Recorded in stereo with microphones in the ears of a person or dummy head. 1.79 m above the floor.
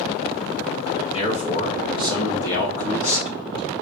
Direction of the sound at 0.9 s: 30° left (ahead or behind).